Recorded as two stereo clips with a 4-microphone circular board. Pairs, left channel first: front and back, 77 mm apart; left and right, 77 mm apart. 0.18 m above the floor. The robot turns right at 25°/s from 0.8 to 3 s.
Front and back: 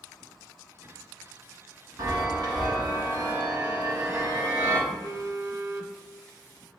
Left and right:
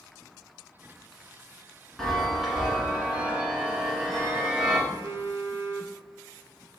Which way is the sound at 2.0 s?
175° left.